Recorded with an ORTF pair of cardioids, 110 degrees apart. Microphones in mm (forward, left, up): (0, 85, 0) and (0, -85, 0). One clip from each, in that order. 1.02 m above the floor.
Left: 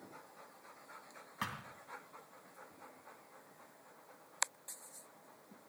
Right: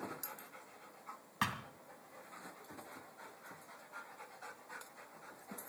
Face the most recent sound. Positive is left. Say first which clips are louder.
# right 5 dB
turn(degrees=-30)